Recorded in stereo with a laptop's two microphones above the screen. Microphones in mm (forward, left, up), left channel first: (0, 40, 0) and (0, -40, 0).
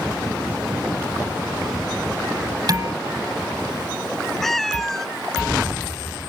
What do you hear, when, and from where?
2.7 s dishes clattering: 50° right (ahead or behind)
4.4 s a cat meowing: centre (ahead or behind)